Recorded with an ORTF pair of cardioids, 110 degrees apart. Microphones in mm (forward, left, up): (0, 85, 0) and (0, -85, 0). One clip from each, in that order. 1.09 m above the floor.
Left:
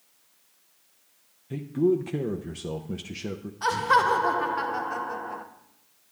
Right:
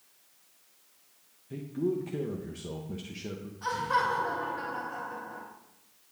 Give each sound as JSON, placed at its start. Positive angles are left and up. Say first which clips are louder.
{"t": 1.5, "sound": "a man speaking", "louder": "left 8 dB", "azimuth_deg": 30, "distance_m": 0.7}
{"t": 3.6, "sound": "laughter", "louder": "left 7 dB", "azimuth_deg": 60, "distance_m": 1.3}